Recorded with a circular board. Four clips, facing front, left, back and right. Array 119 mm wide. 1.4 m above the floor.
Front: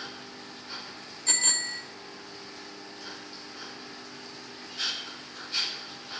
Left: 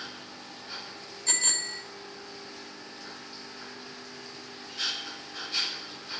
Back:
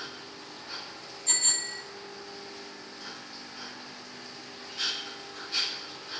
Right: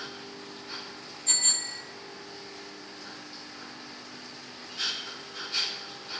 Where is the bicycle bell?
35° left, 4 m.